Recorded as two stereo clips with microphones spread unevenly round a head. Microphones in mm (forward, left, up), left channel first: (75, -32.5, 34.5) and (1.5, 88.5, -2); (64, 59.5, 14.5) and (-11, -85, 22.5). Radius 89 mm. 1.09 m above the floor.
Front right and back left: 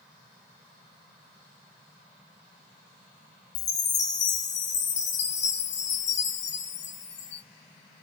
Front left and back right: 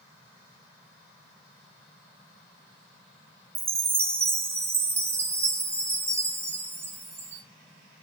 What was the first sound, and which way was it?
A chime, 45° right.